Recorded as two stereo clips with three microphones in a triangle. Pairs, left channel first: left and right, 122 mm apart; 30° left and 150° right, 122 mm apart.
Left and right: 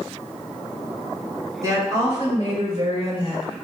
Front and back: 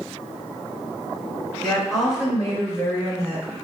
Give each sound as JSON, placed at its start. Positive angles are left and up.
{"t": 1.6, "sound": "a woman speaking", "azimuth_deg": -55, "distance_m": 1.6}